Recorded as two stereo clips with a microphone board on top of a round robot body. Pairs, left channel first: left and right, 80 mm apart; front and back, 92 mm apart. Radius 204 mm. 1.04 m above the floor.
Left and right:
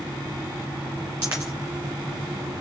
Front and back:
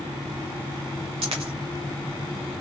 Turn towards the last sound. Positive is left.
turn(degrees=-155)